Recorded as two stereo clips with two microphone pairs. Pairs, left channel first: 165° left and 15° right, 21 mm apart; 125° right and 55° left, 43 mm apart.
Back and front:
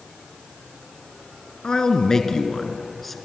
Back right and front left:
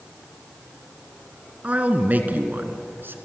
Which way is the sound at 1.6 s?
110° left.